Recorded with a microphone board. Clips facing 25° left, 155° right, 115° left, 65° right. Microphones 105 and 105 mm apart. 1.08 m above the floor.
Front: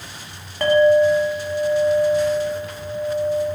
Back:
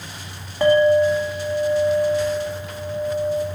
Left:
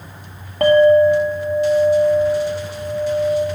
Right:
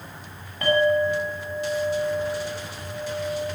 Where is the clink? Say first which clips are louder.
Front 1 dB, left 10 dB; 120° left, 1.5 m.